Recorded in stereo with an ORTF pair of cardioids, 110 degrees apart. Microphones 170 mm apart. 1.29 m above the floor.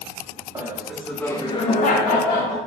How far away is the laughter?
About 0.9 m.